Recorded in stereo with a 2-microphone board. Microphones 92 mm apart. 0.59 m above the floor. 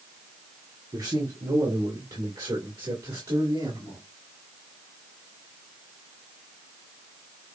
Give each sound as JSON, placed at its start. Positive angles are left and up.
{"t": 0.9, "sound": "a man speaking", "side_deg": -50, "distance_m": 1.5}